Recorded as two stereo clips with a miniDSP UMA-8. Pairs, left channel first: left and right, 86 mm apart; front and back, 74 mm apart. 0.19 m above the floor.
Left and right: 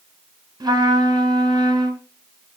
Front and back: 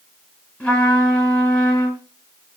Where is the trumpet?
60° right, 2.5 m.